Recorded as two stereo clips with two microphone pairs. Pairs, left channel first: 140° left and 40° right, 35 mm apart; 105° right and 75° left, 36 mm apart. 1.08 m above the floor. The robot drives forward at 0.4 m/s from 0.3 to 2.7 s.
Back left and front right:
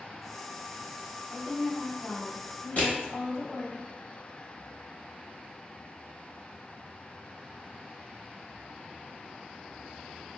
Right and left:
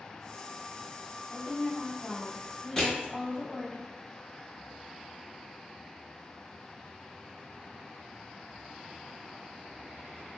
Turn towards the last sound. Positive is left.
turn(degrees=180)